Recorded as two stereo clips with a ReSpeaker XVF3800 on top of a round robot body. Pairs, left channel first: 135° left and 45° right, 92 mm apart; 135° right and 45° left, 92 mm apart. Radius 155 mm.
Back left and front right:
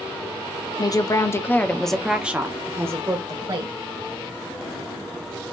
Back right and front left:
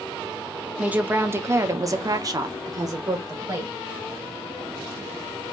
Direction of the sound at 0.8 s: 115° left.